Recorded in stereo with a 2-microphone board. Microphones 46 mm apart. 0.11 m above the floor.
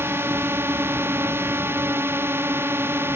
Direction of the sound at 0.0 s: 60° right (ahead or behind).